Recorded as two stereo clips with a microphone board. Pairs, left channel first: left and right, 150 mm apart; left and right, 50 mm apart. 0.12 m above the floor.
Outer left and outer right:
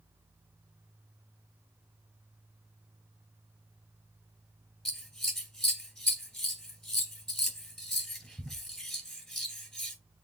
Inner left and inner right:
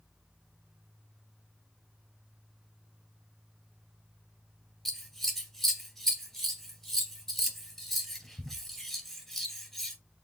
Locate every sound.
4.8 s scissors: 5° left (ahead or behind), 2.5 m